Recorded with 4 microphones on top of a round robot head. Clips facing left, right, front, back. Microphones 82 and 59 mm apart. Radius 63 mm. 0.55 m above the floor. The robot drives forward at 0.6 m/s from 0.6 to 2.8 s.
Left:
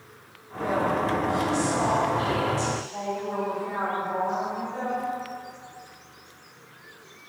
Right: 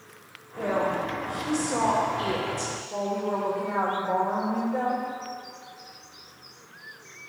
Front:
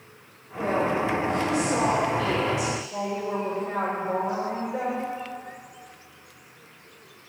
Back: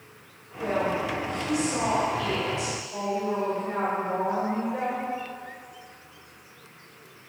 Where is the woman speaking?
45° right, 3 m; by 5.0 s 75° right, 2.5 m.